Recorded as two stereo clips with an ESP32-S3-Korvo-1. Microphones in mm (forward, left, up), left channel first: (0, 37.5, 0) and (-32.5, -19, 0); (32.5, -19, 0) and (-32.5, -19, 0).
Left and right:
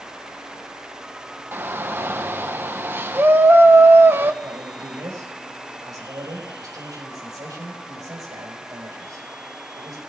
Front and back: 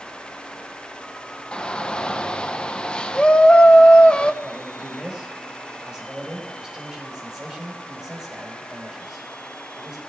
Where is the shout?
70° right, 0.9 m.